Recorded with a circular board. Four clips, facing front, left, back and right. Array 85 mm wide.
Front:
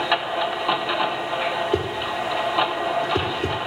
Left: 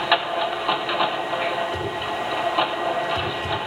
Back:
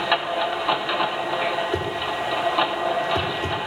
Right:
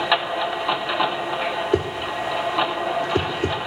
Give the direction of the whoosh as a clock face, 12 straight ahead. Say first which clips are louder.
Right 3 dB, front 1 dB; 2 o'clock.